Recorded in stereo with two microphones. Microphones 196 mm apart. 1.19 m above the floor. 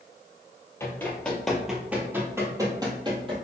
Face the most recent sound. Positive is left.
turn(degrees=-30)  # may be behind; listen again after turning